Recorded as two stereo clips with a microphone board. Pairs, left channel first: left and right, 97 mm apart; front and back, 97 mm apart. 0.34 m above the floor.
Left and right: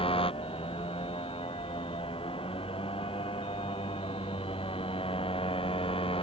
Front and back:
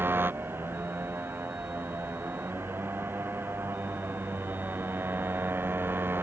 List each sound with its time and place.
0.0 s a motorcycle: 110° left